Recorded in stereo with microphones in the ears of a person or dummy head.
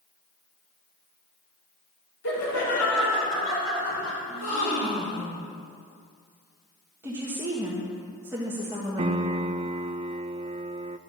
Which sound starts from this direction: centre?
A woman speaking, at 7.0 s.